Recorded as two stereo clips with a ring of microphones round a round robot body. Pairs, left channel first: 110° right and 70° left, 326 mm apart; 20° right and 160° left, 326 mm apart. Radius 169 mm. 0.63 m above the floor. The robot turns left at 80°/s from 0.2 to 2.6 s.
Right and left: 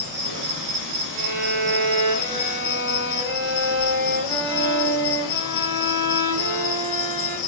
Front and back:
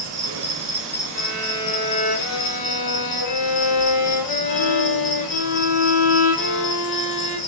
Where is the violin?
115° left, 0.5 m; by 7.4 s straight ahead, 0.5 m.